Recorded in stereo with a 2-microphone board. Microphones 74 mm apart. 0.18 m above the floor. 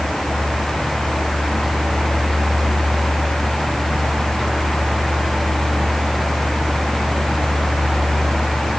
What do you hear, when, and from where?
Only background noise.